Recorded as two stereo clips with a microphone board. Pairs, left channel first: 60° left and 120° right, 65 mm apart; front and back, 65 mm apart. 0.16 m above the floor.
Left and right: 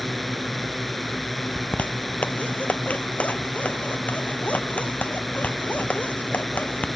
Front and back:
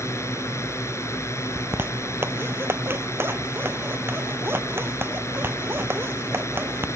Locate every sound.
0.0 s a drone: 30° right
1.6 s a zipper: 130° left